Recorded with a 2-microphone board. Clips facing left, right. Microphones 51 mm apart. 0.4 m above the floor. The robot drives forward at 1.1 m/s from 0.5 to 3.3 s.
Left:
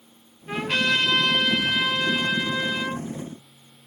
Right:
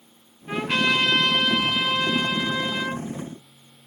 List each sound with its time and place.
0.5 s a trumpet: centre (ahead or behind), 4 m